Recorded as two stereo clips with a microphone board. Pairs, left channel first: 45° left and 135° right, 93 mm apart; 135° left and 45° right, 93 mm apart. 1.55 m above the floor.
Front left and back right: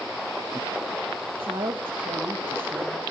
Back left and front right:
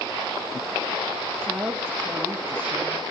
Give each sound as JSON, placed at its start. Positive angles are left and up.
{"t": 1.4, "sound": "a woman speaking", "azimuth_deg": -110, "distance_m": 2.0}